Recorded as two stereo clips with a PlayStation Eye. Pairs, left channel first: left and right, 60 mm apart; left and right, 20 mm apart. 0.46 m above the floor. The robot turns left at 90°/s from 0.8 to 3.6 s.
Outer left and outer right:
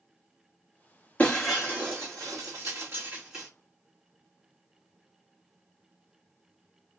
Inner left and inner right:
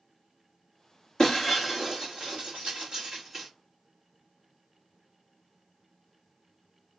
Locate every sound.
1.2 s breaking glass: 25° left (ahead or behind), 1.6 m; by 3.5 s 5° left (ahead or behind), 1.6 m